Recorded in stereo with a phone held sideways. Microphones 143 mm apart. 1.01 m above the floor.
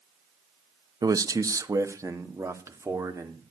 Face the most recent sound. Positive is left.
turn(degrees=-20)  # may be behind; listen again after turning